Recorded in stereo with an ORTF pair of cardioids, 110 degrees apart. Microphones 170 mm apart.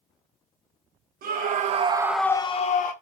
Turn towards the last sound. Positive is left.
turn(degrees=55)